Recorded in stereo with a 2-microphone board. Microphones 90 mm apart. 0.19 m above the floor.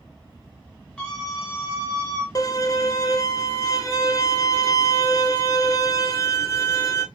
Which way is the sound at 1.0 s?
10° left (ahead or behind).